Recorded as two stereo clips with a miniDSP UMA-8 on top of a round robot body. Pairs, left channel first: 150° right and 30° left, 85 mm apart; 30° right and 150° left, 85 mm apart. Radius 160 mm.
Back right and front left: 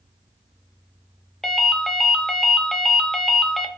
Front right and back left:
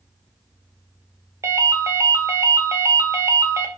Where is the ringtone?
125° left, 0.6 m.